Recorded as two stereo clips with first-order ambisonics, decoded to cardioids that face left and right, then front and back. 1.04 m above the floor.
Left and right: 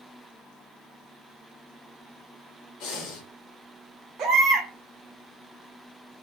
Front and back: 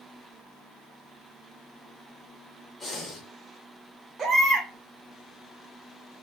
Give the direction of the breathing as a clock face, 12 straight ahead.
10 o'clock.